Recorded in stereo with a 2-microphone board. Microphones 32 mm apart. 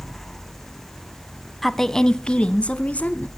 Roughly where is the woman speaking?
Centre.